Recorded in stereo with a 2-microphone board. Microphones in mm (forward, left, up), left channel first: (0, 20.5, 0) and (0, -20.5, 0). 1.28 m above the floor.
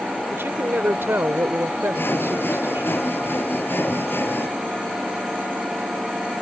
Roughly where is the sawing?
Left.